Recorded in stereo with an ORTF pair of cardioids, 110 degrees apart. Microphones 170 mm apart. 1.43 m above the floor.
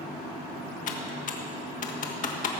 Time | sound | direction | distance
0.9 | typing on a keyboard | 50° left | 1.7 m